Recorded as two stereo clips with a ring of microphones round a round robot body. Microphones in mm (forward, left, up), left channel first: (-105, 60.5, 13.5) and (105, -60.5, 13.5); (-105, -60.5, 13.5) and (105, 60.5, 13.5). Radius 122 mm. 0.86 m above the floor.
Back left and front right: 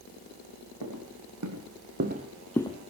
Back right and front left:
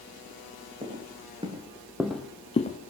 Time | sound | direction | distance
0.8 | footsteps | 35° right | 2.5 m